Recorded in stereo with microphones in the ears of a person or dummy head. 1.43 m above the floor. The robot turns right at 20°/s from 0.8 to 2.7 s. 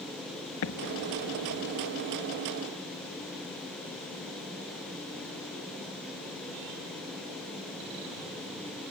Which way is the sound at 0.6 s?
75° left (ahead or behind).